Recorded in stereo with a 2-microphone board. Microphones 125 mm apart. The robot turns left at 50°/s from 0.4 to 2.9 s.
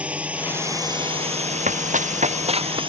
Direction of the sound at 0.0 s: 10° right.